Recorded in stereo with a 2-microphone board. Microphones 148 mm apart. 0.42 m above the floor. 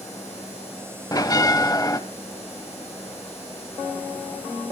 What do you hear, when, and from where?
1.1 s a bell: 25° left (ahead or behind), 0.7 m